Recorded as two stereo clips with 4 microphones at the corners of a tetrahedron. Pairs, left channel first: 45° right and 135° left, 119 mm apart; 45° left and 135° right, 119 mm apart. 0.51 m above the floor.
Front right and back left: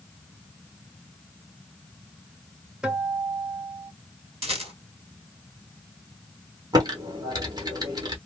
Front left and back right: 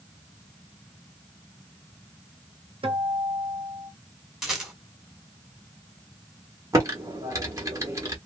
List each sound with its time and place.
2.8 s a guitar: 145° right, 1.1 m
4.4 s a rattle: 140° left, 1.8 m
6.7 s typing on a keyboard: 170° left, 1.2 m